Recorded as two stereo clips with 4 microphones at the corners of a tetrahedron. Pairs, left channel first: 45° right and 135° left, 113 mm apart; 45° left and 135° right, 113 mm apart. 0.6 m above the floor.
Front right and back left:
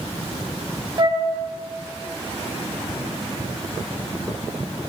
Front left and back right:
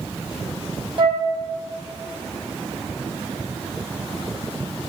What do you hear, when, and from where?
1.0 s a flute: straight behind, 0.7 m